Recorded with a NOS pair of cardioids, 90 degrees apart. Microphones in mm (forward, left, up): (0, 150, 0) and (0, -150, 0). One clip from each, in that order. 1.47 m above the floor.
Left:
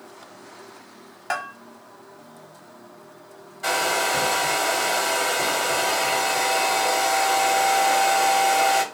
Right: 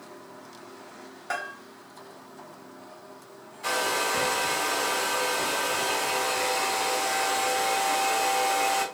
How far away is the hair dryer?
About 0.7 m.